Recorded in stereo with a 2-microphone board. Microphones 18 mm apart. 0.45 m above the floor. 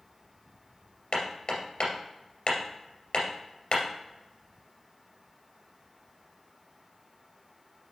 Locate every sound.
1.1 s hammering: 70° left (ahead or behind), 2.5 m